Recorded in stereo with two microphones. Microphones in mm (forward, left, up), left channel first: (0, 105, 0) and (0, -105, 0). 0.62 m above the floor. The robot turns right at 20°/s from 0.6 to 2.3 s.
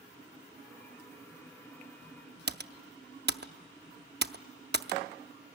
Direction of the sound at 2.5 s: 55° right (ahead or behind).